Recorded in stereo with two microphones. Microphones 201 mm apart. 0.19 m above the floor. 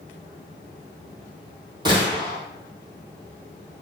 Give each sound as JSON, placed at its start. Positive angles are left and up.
{"t": 1.9, "sound": "a gunshot", "side_deg": -20, "distance_m": 1.9}